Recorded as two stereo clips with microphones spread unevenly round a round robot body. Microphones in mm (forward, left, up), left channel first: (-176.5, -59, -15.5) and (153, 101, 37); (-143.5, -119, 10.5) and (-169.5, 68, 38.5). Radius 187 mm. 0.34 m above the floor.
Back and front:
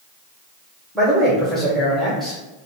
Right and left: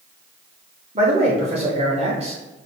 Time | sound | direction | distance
0.9 | a man speaking | 130° left | 0.9 m